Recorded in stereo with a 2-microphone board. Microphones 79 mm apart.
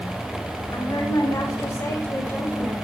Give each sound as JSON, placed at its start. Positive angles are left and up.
{"t": 0.7, "sound": "a woman speaking", "side_deg": 55, "distance_m": 2.0}